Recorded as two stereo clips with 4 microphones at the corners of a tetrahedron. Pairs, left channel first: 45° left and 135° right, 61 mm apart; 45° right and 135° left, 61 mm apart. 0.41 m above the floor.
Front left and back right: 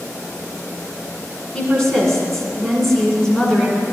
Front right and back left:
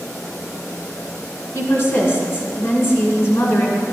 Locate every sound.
1.5 s a woman speaking: 25° right, 1.7 m